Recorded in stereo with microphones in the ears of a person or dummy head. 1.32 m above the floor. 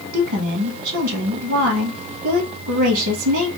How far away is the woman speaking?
About 0.9 m.